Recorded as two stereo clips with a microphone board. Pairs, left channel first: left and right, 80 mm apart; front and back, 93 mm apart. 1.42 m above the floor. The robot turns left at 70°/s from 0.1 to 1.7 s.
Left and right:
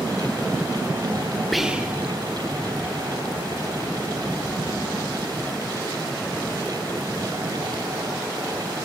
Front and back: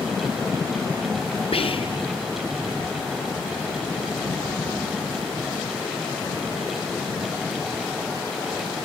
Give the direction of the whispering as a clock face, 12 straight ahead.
12 o'clock.